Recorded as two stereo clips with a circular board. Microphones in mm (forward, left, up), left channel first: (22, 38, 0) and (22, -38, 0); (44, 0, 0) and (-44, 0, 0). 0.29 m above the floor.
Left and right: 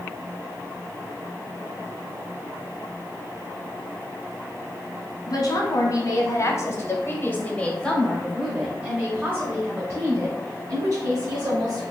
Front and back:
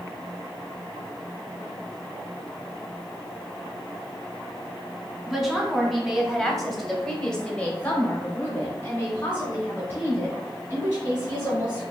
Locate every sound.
5.3 s a woman speaking: 100° left, 1.9 m; by 11.8 s 60° right, 2.5 m